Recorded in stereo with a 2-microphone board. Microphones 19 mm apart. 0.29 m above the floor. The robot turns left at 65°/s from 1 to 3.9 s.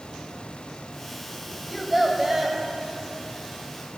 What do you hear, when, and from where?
1.7 s a child speaking: 5° left, 1.1 m; by 2.6 s 50° right, 1.1 m